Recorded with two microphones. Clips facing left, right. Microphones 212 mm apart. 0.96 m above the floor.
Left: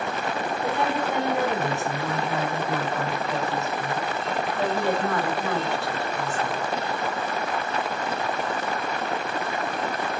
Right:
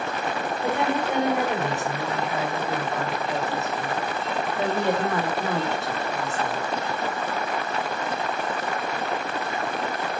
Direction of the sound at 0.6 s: 20° right (ahead or behind).